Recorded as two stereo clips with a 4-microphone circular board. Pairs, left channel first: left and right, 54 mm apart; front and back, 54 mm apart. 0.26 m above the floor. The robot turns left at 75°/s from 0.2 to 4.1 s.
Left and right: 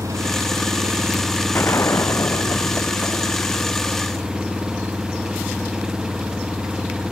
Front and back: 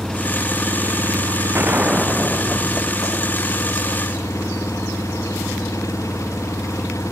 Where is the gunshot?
135° left; by 3.8 s 40° right.